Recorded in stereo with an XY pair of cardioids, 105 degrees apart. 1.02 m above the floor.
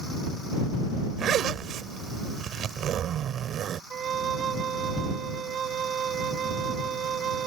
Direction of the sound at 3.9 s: 55° right.